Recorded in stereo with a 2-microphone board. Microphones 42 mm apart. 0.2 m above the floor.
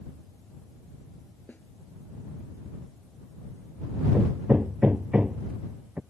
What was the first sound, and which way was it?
A snare drum, 45° left (ahead or behind).